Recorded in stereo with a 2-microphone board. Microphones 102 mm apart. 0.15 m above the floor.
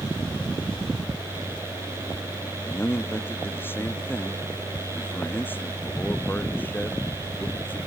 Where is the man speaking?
20° left (ahead or behind).